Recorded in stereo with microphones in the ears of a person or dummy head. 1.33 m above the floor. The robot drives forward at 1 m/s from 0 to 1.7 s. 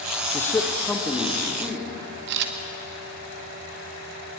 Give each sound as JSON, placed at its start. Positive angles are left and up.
{"t": 0.3, "sound": "a man speaking", "side_deg": 15, "distance_m": 1.1}
{"t": 2.3, "sound": "a camera shutter", "side_deg": -65, "distance_m": 2.0}